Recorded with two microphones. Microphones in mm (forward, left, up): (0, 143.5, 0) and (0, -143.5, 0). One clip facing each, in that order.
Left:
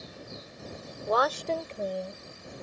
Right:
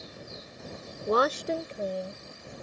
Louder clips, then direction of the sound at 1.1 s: Right 2 dB; 35° right (ahead or behind).